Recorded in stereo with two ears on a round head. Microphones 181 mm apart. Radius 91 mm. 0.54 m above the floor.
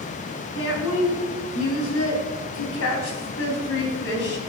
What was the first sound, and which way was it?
A woman speaking, 70° left (ahead or behind).